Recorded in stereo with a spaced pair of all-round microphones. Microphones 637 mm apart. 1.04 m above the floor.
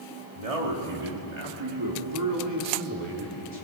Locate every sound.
0.3 s a man speaking: 65° right (ahead or behind), 3 m; by 3.6 s 10° right (ahead or behind), 4 m